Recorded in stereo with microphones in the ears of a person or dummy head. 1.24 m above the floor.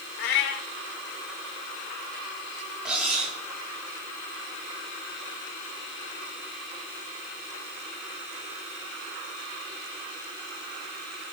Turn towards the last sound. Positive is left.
turn(degrees=-5)  # may be behind; listen again after turning